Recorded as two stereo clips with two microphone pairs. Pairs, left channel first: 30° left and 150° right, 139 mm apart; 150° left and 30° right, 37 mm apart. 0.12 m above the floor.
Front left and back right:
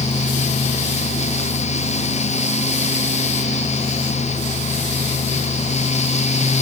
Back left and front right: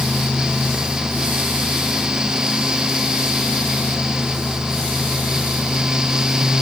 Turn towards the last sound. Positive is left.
No sound to turn to.